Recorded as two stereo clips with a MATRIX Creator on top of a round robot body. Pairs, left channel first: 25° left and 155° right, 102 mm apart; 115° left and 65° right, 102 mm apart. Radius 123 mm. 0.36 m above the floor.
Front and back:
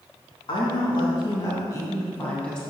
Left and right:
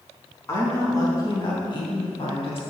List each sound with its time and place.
0.5 s a woman speaking: 50° left, 3.5 m; by 2.6 s 105° left, 2.5 m